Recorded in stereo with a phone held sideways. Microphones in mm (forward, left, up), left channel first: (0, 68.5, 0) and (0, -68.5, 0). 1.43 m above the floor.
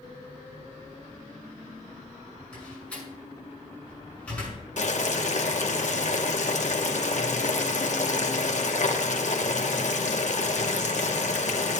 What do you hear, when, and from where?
2.5 s a door slam: 10° left (ahead or behind), 6 m
4.8 s boiling: 60° left (ahead or behind), 1.0 m